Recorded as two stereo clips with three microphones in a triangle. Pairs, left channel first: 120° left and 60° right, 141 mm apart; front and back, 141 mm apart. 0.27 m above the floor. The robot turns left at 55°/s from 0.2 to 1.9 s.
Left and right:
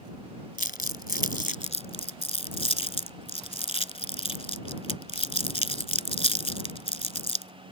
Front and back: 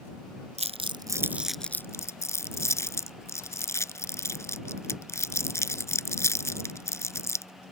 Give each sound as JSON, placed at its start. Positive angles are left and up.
{"t": 0.6, "sound": "crumpling", "azimuth_deg": 140}